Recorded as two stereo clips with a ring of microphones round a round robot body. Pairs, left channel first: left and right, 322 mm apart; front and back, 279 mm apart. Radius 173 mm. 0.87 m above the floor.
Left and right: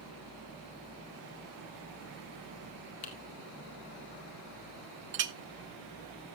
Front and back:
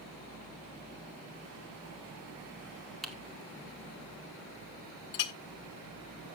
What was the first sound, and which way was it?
Typing on a keyboard, 90° left.